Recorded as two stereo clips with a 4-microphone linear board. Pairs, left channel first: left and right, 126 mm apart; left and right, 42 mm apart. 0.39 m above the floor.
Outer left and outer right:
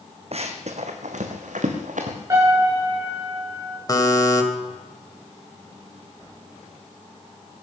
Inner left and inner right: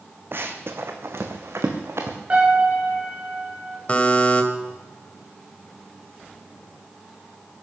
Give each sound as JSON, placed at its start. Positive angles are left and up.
{"t": 0.3, "sound": "running footsteps", "side_deg": -55, "distance_m": 1.7}
{"t": 2.3, "sound": "a piano", "side_deg": -25, "distance_m": 9.0}
{"t": 3.9, "sound": "a buzzer", "side_deg": 30, "distance_m": 1.9}